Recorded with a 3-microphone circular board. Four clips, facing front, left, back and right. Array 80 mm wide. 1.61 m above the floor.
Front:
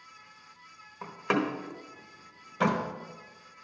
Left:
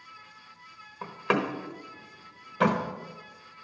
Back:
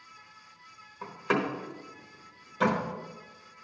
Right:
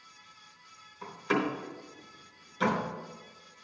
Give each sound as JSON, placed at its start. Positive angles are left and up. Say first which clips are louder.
{"t": 1.0, "sound": "a door slam", "louder": "left 2 dB, even", "azimuth_deg": 65, "distance_m": 1.1}